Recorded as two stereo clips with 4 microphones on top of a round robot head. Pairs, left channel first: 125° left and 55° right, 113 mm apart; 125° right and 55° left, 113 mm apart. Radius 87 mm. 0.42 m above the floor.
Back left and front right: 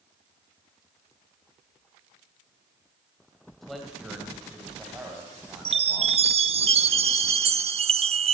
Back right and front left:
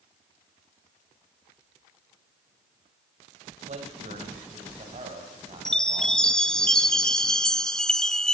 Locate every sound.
3.6 s a man speaking: 35° left, 2.5 m; by 6.7 s 15° left, 4 m
5.7 s a chime: 40° right, 1.1 m